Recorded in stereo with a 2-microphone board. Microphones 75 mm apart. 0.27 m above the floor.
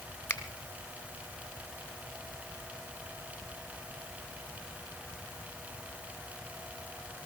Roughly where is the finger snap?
Left.